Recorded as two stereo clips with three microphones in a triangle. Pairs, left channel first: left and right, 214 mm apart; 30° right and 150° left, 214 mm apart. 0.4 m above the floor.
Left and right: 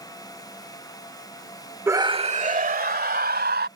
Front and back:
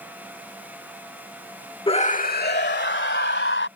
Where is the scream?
30° right; by 3.7 s 55° right.